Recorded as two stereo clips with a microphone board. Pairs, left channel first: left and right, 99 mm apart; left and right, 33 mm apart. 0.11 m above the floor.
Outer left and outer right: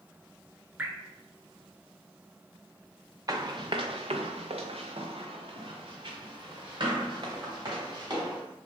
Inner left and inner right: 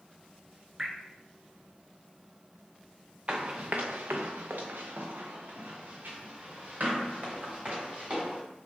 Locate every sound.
0.8 s dripping: 15° right (ahead or behind), 0.8 m
3.3 s running footsteps: 40° right (ahead or behind), 0.6 m; by 8.4 s 45° right (ahead or behind), 2.5 m